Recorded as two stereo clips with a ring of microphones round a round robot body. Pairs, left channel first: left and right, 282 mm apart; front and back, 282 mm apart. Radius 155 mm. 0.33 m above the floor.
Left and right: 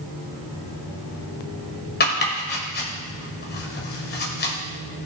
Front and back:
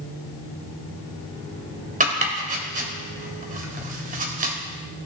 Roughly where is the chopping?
Behind left.